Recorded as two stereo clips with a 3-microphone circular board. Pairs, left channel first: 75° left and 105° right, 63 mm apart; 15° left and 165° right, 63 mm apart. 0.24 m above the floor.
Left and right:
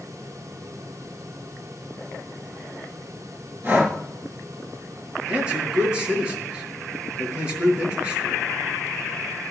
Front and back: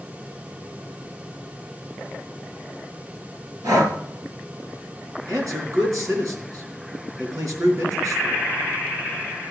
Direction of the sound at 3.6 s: 165° right.